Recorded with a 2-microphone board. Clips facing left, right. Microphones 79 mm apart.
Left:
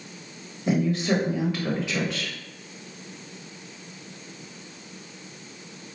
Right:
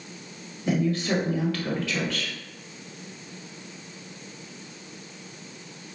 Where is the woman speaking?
20° left (ahead or behind), 1.2 m.